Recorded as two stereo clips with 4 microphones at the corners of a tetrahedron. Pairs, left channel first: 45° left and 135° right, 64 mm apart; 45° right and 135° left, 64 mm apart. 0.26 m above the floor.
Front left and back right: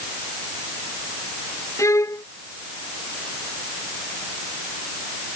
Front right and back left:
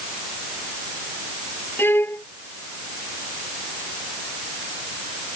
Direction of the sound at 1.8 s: 10° left.